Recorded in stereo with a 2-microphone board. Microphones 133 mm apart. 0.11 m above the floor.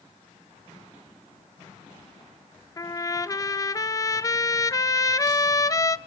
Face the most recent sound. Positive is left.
turn(degrees=25)  # may be behind; listen again after turning